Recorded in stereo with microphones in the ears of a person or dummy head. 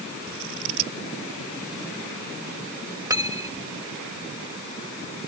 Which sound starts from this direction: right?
Scissors, at 0.3 s.